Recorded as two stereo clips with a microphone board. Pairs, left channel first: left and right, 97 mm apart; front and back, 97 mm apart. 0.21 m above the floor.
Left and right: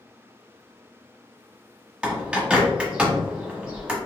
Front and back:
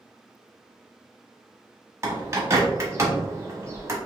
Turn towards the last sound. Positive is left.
turn(degrees=-160)